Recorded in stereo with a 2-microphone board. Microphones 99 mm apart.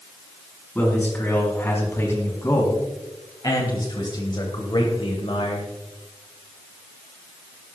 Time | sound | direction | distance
0.8 | a man speaking | 20° left (ahead or behind) | 4 m